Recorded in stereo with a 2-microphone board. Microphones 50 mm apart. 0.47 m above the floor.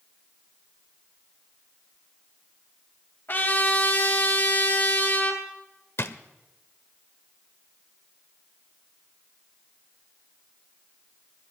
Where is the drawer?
55° left (ahead or behind), 0.9 m.